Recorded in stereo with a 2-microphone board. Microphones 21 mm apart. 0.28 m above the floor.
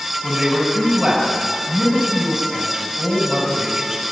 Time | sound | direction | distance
0.2 | a man speaking | 40° right (ahead or behind) | 6.5 m